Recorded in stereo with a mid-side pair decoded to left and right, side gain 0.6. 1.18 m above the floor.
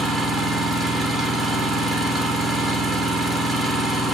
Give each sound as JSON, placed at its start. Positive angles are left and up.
{"t": 0.0, "sound": "an engine running", "azimuth_deg": -15, "distance_m": 2.5}